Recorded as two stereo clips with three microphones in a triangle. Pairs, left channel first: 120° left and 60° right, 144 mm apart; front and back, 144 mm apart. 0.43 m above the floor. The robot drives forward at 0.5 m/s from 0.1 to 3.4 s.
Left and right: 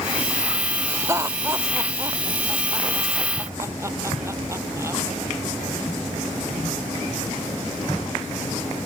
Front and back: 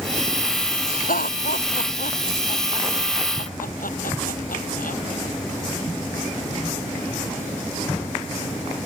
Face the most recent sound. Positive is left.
turn(degrees=10)